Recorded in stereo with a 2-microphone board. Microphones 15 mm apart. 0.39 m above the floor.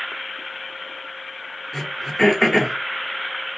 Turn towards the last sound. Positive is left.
turn(degrees=20)  # may be behind; listen again after turning